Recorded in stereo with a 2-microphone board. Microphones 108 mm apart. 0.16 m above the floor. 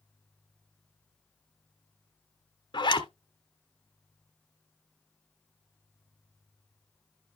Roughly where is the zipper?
Left.